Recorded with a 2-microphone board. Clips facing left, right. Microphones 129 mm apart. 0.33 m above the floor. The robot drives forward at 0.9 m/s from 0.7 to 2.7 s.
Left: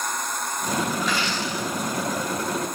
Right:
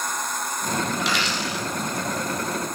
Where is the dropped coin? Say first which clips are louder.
Even; 80° right, 4.5 m; by 1.6 s 70° right (ahead or behind), 4.5 m.